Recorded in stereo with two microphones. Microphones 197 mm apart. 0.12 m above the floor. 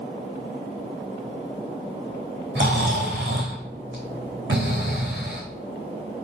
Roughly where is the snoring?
Right.